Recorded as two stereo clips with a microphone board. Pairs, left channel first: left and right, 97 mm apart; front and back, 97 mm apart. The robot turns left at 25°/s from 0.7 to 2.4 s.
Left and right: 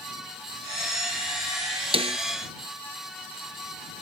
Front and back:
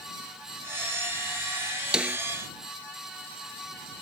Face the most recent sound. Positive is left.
turn(degrees=-110)